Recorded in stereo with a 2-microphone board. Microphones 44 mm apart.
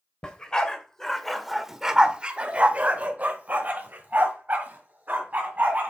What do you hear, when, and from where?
0.2 s a dog barking: 20° left (ahead or behind), 1.0 m; by 5.9 s 40° right (ahead or behind), 2 m